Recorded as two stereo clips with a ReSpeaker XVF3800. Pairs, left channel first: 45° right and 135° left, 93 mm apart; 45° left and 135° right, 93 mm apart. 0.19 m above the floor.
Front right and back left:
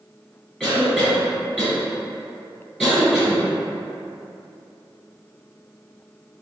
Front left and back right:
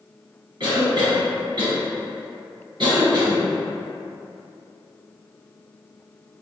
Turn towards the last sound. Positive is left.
turn(degrees=-120)